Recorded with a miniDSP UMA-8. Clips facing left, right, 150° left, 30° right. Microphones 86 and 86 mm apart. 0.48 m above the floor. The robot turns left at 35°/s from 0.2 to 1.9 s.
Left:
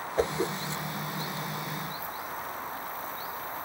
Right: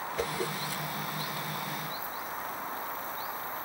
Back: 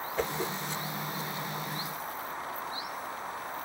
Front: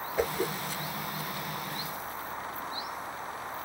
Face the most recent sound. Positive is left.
turn(degrees=-10)